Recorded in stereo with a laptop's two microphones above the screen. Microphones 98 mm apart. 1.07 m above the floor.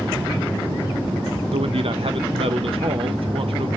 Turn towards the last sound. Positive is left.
turn(degrees=-70)  # may be behind; listen again after turning